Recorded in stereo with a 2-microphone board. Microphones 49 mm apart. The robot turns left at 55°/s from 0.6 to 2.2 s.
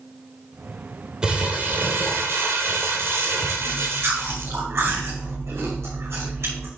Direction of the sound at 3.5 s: 65° right (ahead or behind).